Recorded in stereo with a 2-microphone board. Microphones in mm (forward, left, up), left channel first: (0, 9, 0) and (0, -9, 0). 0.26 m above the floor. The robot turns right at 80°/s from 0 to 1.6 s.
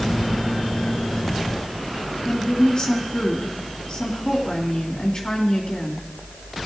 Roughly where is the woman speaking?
Left.